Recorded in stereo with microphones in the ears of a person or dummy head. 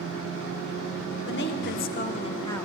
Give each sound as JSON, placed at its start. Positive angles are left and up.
{"t": 1.2, "sound": "a woman speaking", "side_deg": 65, "distance_m": 0.9}